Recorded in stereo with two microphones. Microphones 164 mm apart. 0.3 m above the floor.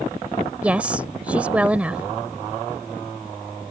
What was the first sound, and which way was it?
A woman speaking, 10° right (ahead or behind).